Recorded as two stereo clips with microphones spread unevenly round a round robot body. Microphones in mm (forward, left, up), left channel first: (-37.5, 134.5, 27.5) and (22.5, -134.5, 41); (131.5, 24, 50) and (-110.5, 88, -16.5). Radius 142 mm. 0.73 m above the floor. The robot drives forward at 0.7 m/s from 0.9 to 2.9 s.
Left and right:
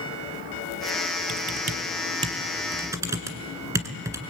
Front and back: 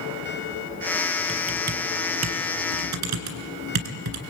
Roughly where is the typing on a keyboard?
Behind right.